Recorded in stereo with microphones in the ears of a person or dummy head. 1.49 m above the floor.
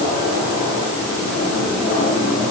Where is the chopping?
I don't hear chopping.